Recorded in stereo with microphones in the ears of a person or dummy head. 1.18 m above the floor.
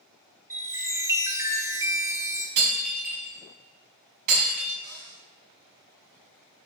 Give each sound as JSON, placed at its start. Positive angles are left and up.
{"t": 0.5, "sound": "a chime", "side_deg": -15, "distance_m": 0.7}
{"t": 2.6, "sound": "breaking glass", "side_deg": -50, "distance_m": 4.0}
{"t": 4.8, "sound": "a cupboard door", "side_deg": -25, "distance_m": 3.5}